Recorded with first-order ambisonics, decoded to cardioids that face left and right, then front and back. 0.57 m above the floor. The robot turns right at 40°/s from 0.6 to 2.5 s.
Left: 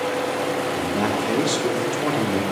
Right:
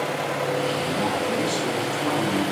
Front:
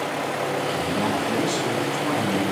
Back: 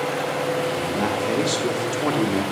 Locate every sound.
0.8 s a man speaking: 110° left, 1.3 m; by 2.4 s straight behind, 1.3 m